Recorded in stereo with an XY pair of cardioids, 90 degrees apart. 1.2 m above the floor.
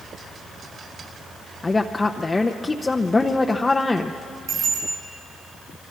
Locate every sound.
1.6 s a woman speaking: 25° left, 0.8 m
4.5 s a bicycle bell: 60° right, 9.5 m